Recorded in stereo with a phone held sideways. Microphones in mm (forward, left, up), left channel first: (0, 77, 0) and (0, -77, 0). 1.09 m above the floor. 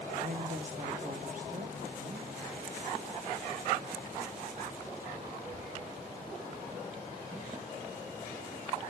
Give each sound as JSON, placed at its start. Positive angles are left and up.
{"t": 0.1, "sound": "a woman speaking", "side_deg": -60, "distance_m": 1.0}